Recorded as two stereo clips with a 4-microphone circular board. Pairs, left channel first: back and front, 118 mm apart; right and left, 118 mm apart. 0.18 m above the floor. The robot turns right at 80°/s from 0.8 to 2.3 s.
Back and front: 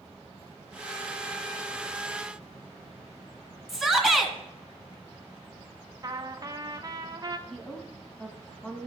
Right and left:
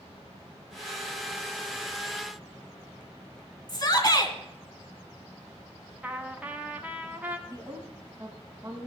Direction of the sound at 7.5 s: 110° left.